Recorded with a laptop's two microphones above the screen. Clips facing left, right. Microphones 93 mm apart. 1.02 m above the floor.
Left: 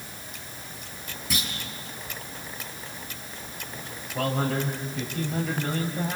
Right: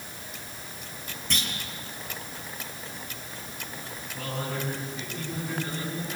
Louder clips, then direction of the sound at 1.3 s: Left 1 dB; 5° left (ahead or behind).